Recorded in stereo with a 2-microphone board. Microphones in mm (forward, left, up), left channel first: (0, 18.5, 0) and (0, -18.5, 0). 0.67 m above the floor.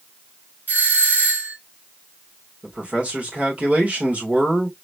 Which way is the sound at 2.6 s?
40° right (ahead or behind).